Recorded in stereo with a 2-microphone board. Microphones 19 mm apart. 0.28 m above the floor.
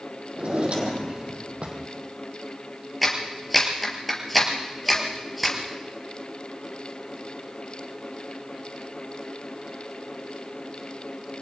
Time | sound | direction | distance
0.3 | a drawer | 60° right (ahead or behind) | 4 m
3.0 | a clap | 5° left (ahead or behind) | 4 m